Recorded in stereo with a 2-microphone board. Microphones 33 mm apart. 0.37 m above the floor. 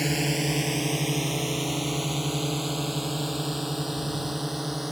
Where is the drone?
Centre (ahead or behind); by 4.9 s 5° right (ahead or behind).